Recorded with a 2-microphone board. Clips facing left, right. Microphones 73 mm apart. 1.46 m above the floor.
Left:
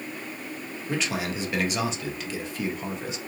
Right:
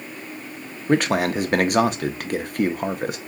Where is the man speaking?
55° right (ahead or behind), 0.5 m.